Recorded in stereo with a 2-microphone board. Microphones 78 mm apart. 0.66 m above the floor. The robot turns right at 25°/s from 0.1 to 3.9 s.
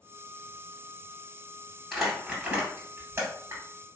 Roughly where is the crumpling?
Centre.